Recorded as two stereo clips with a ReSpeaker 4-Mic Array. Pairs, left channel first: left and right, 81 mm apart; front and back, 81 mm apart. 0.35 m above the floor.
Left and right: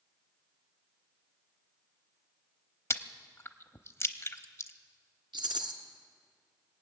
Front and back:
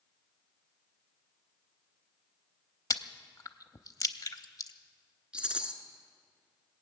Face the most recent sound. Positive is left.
turn(degrees=-100)